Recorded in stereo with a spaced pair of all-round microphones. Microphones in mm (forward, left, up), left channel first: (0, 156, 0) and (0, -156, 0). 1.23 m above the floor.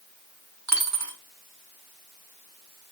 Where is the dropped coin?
55° right (ahead or behind), 1.2 m.